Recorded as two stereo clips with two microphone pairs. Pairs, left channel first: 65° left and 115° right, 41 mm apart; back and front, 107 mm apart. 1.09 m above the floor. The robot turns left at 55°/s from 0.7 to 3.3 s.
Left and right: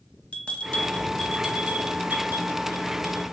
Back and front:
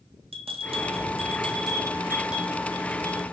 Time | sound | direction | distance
0.3 | a bell | 10° left | 0.5 m